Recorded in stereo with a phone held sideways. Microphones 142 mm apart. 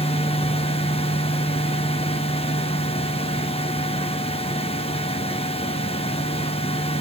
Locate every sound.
0.0 s a fan: 45° left (ahead or behind), 1.0 m